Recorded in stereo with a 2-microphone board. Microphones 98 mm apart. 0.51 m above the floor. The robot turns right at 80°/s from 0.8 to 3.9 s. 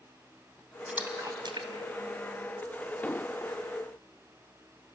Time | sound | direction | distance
0.9 | a splash | 10° right (ahead or behind) | 1.9 m
3.0 | an explosion | 30° left | 0.5 m